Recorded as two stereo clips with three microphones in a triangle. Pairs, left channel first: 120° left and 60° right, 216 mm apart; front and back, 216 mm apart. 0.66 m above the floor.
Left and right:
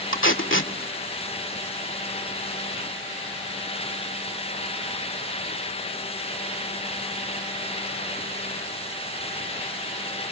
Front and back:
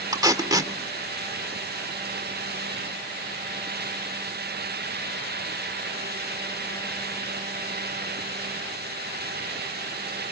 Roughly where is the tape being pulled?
Left.